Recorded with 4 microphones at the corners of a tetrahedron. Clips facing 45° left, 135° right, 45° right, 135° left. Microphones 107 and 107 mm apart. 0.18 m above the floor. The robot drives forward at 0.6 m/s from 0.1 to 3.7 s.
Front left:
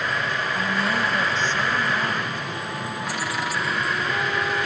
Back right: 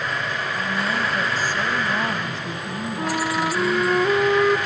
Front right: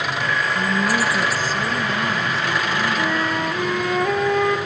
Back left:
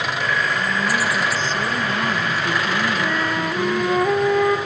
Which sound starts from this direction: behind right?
A flute, at 3.0 s.